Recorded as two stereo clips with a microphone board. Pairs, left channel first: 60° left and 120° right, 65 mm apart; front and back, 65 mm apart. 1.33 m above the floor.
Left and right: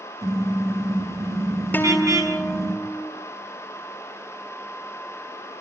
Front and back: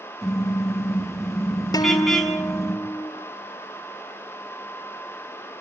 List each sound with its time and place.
0.2 s a car horn: 90° right, 7 m
1.7 s a guitar: straight ahead, 3.5 m